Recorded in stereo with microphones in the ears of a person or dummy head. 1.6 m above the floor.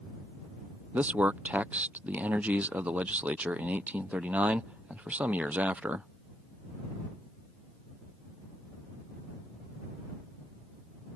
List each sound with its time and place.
0.9 s a man speaking: 15° right (ahead or behind)